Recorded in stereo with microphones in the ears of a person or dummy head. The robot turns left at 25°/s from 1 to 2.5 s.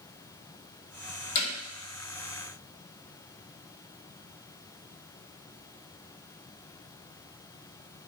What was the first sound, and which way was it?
Hammering, 45° left (ahead or behind).